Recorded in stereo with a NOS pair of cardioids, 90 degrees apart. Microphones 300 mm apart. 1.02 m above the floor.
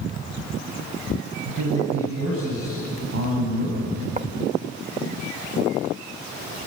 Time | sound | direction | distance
1.4 | a man speaking | 50° right | 8 m
4.2 | writing | 25° right | 1.1 m